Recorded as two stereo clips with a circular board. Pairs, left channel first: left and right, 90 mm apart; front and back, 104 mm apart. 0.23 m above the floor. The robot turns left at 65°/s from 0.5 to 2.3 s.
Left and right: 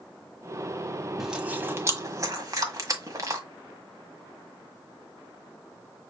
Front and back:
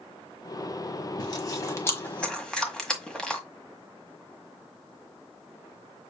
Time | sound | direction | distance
1.2 | chewing | 5° right | 1.4 m